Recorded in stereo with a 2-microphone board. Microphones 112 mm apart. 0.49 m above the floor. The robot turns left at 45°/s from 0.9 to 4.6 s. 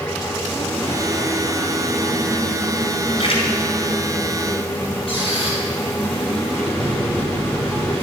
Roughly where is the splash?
Left.